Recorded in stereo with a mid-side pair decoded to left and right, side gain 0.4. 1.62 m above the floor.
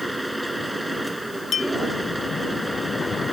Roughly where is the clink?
Ahead left.